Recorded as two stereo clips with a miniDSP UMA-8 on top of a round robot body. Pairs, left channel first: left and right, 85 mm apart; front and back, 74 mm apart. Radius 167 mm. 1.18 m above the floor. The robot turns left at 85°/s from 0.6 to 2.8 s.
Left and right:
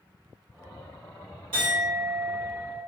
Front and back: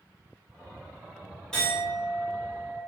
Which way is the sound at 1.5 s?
80° right.